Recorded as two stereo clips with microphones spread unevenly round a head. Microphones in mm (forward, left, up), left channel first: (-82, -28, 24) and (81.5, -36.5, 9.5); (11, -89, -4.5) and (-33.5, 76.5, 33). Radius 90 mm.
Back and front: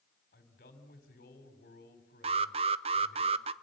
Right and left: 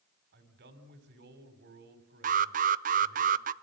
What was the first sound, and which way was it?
A man speaking, 130° left.